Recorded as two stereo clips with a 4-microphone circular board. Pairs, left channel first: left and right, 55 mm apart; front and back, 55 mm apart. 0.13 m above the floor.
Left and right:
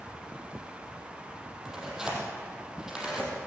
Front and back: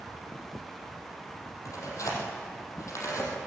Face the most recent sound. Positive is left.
turn(degrees=-15)